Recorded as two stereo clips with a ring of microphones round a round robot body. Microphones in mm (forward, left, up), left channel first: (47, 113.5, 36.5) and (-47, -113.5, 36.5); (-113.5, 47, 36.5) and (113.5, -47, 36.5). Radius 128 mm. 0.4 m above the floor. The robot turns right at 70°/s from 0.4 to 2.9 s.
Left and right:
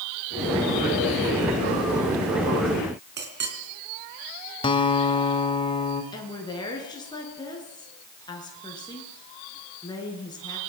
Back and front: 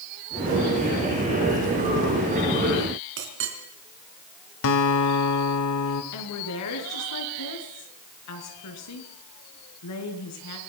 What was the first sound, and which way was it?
A clink, 65° right.